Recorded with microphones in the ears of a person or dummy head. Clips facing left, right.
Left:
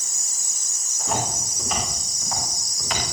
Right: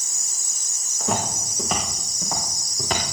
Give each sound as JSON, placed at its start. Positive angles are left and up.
{"t": 1.0, "sound": "footsteps", "side_deg": -55, "distance_m": 7.5}